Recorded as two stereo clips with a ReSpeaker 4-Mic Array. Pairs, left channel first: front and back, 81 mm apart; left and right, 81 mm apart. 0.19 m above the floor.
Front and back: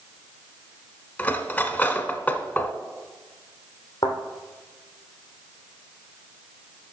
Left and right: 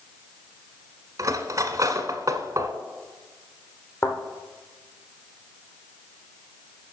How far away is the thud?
About 2.5 m.